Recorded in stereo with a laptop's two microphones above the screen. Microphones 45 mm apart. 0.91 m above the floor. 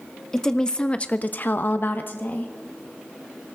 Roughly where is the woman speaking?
Centre.